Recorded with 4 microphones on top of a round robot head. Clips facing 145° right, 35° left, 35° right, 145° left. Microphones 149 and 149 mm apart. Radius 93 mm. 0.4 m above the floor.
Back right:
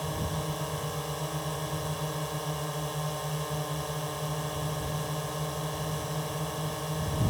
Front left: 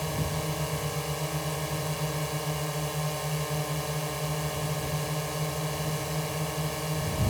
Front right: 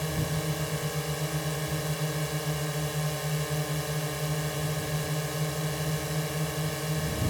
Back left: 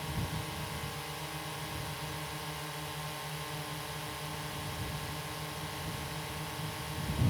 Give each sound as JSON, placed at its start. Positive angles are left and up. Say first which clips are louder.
{"t": 0.0, "sound": "a drone", "louder": "front left 2 dB, front right 8 dB", "azimuth_deg": -45}